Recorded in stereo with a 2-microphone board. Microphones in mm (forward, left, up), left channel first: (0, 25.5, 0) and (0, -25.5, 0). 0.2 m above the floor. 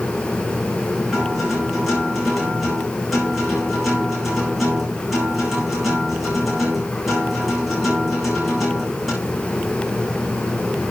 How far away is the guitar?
About 10 m.